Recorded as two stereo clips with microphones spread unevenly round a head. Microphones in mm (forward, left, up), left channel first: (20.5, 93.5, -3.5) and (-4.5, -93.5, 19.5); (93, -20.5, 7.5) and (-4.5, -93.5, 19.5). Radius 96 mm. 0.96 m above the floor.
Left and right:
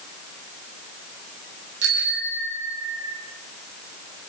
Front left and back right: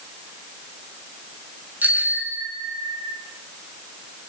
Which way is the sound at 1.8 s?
70° right.